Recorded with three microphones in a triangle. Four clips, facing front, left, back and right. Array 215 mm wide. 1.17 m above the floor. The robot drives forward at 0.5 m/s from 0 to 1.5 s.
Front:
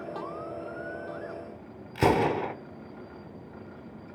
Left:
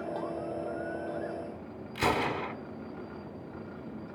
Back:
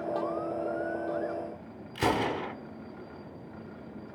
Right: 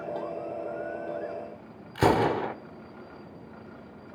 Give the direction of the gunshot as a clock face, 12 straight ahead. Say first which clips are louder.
Right 6 dB, front 5 dB; 2 o'clock.